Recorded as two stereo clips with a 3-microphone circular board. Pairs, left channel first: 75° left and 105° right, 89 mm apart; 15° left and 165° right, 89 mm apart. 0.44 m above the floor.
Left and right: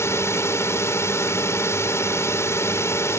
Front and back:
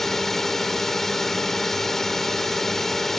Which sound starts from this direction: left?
A drone, at 0.0 s.